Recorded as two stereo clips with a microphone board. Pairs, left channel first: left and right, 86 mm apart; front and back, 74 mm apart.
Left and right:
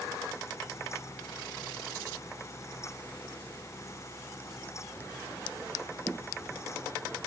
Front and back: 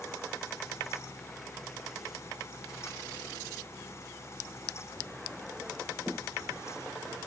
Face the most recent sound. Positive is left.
No sound to turn to.